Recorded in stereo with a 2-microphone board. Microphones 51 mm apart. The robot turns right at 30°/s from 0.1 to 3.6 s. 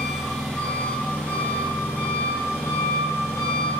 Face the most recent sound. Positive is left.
turn(degrees=105)